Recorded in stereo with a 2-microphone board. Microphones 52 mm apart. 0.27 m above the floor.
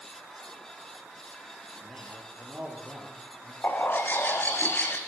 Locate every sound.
1.8 s a man speaking: 30° right (ahead or behind), 8.5 m
3.6 s a bird: 35° left (ahead or behind), 3 m